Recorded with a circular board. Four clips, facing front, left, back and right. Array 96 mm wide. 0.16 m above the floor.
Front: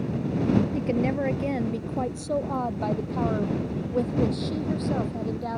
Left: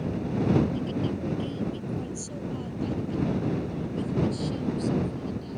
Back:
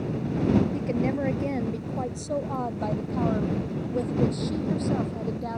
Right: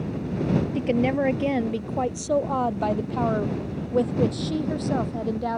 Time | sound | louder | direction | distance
0.8 | a woman speaking | right 7 dB, front 1 dB | 80° right | ?